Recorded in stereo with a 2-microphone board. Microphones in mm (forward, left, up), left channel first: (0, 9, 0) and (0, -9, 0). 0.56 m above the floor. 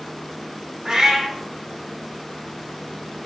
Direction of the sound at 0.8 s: 40° right (ahead or behind).